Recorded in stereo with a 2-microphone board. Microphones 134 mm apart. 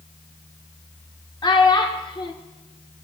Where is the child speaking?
35° left (ahead or behind), 0.6 m.